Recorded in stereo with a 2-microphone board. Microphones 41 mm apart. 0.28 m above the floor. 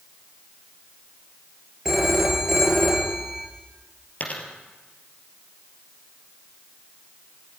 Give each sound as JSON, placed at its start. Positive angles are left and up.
{"t": 1.9, "sound": "a phone ringing", "side_deg": -5, "distance_m": 3.5}
{"t": 4.2, "sound": "a dropped coin", "side_deg": 40, "distance_m": 3.0}